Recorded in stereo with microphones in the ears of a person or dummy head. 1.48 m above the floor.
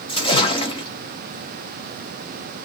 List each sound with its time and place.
0.1 s a splash: 30° left (ahead or behind), 0.8 m